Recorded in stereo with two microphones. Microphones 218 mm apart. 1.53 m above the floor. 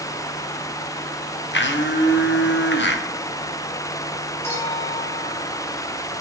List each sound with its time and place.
1.5 s a blender: 55° left (ahead or behind), 0.7 m
4.4 s a clink: 10° left (ahead or behind), 4 m